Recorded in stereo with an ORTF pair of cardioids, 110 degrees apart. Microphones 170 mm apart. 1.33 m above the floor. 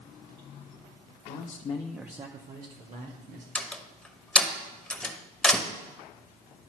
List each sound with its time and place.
1.3 s a man speaking: 65° left, 1.0 m; by 3.5 s 70° right, 2 m
3.5 s a door slam: 5° left, 1.0 m